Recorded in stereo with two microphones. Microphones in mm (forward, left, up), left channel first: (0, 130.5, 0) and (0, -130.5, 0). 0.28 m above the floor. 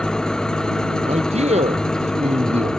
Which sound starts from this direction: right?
A man speaking, at 1.0 s.